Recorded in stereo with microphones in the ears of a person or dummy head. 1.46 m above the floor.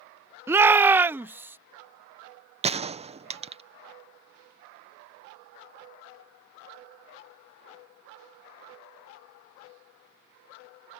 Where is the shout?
15° right (ahead or behind).